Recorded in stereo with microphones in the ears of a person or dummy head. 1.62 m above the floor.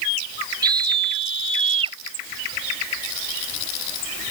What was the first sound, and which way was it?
A scream, 20° right (ahead or behind).